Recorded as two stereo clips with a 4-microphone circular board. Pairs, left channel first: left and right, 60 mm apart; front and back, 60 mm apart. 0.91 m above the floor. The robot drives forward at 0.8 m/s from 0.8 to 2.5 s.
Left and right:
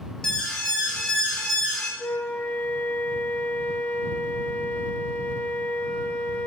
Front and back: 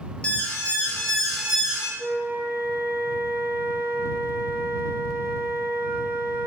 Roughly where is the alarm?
Ahead left.